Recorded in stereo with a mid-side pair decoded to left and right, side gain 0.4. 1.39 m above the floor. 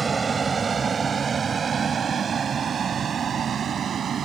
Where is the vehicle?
35° right; by 4.3 s 60° right.